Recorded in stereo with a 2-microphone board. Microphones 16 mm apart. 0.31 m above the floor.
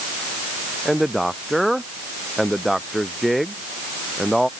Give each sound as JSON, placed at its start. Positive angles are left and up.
{"t": 0.8, "sound": "a man speaking", "side_deg": 0}